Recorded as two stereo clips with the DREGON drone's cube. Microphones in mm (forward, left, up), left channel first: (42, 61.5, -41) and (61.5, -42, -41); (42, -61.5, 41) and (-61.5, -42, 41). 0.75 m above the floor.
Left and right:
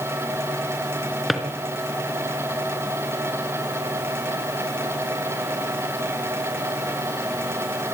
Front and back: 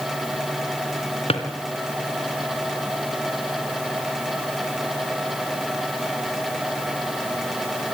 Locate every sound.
1.3 s a drawer: 10° left, 3 m